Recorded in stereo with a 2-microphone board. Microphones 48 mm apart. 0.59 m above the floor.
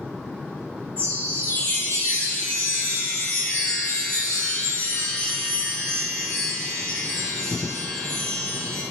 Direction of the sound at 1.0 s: 40° left (ahead or behind).